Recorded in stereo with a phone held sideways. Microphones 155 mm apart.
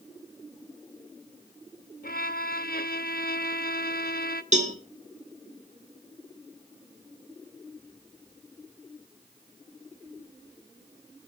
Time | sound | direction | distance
2.0 | a violin | 75° left (ahead or behind) | 0.9 m
4.5 | a cowbell | 50° right (ahead or behind) | 2.0 m